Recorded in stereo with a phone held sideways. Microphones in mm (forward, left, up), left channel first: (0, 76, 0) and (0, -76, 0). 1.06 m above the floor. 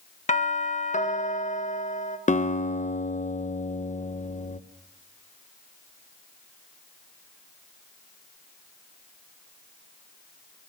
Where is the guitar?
55° left (ahead or behind), 0.9 m.